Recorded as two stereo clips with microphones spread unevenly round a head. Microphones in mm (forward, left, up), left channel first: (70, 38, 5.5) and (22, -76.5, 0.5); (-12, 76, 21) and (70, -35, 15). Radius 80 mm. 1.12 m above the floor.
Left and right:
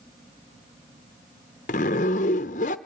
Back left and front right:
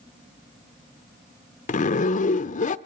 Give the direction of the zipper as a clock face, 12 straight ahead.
9 o'clock.